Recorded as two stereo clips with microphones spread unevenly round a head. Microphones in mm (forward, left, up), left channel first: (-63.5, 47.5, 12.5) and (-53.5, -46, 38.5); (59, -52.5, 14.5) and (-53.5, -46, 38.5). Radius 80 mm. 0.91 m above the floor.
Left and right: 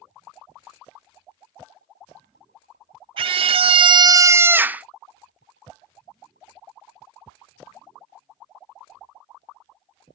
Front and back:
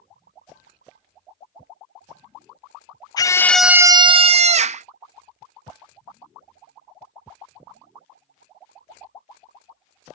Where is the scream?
40° right; by 4.8 s 165° right.